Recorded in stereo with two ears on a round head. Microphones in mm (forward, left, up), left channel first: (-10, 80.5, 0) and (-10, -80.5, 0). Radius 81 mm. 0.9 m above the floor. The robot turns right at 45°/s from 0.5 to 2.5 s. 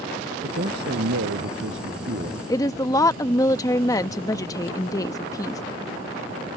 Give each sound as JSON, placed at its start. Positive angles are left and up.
{"t": 0.4, "sound": "a man speaking", "azimuth_deg": -130}
{"t": 2.5, "sound": "a woman speaking", "side_deg": 20}